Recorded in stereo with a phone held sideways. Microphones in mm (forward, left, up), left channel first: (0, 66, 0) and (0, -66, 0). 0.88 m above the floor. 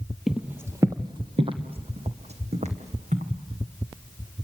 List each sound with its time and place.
0.3 s footsteps: 5° right (ahead or behind), 1.2 m; by 3.3 s 60° right (ahead or behind), 3.5 m